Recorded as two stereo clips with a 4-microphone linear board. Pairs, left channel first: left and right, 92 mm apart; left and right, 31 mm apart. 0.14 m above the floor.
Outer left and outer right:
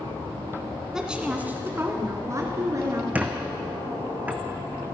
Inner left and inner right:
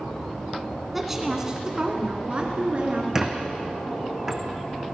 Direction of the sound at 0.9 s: 5° right (ahead or behind).